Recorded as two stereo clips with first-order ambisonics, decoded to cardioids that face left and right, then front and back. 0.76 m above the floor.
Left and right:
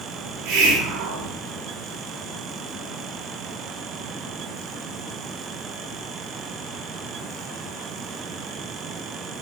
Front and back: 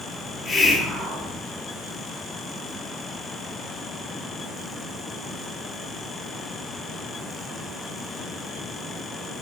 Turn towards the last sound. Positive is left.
turn(degrees=-100)